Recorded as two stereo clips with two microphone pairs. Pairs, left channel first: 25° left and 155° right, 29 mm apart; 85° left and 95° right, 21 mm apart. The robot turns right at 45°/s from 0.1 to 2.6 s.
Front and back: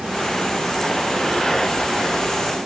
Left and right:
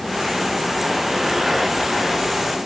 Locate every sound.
Only background noise.